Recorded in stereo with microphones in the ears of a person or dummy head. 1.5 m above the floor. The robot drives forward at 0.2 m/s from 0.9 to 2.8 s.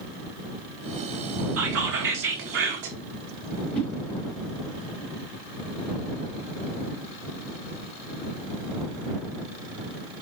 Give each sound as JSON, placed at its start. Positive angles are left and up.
{"t": 1.6, "sound": "whispering", "side_deg": -65, "distance_m": 1.9}
{"t": 3.7, "sound": "a whoosh", "side_deg": 10, "distance_m": 2.5}